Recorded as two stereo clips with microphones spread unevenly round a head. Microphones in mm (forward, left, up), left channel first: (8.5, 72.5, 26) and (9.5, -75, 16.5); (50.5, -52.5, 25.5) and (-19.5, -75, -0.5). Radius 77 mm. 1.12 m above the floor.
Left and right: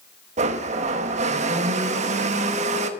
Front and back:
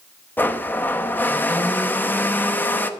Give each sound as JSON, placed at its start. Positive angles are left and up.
{"t": 0.4, "sound": "a blender", "azimuth_deg": -45, "distance_m": 1.0}